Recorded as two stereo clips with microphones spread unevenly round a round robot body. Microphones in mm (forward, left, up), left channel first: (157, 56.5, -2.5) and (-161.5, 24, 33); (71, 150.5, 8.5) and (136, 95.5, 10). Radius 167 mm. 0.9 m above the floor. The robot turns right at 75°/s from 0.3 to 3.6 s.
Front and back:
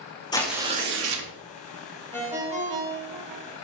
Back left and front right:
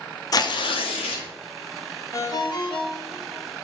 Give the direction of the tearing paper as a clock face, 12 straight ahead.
9 o'clock.